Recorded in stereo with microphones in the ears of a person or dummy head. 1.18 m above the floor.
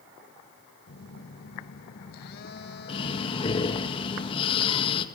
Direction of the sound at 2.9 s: 30° left (ahead or behind).